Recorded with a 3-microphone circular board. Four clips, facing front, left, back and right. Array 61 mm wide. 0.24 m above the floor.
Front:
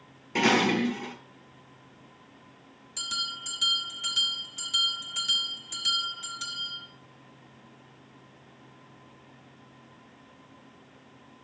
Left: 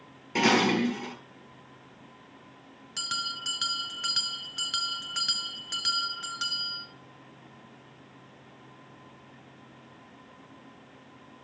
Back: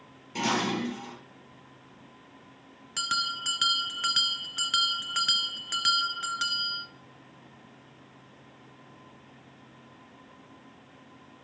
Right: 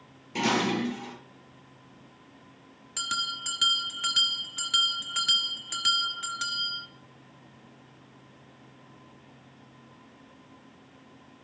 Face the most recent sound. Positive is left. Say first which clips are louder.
# right 2 dB, back 6 dB
turn(degrees=-175)